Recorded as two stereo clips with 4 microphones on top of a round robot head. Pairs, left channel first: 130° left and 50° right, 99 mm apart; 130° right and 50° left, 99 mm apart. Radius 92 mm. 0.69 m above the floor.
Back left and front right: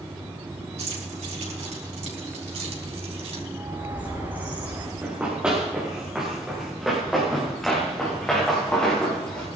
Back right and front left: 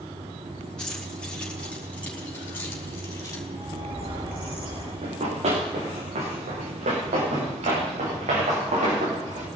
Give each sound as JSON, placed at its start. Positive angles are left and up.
{"t": 0.8, "sound": "keys jangling", "azimuth_deg": -50, "distance_m": 5.0}
{"t": 3.5, "sound": "a bird", "azimuth_deg": 25, "distance_m": 6.5}
{"t": 5.0, "sound": "running footsteps", "azimuth_deg": 30, "distance_m": 4.5}